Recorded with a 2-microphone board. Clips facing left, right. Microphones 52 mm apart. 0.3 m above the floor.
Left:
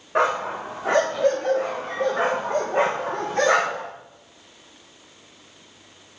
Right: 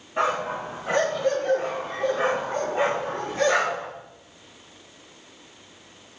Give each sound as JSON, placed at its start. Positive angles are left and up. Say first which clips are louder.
{"t": 0.1, "sound": "a dog barking", "louder": "left 3 dB", "side_deg": 75, "distance_m": 7.0}